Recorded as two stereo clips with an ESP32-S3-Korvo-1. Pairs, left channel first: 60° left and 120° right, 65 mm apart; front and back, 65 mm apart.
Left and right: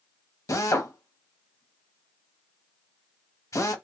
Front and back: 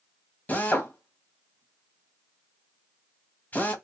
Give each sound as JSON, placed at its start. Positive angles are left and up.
{"t": 0.5, "sound": "a drill", "azimuth_deg": 55, "distance_m": 1.2}